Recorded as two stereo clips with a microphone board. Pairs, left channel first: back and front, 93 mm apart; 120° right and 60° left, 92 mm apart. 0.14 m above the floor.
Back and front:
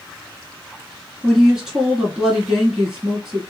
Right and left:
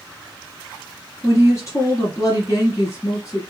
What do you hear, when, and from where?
1.2 s a woman speaking: 80° right, 1.5 m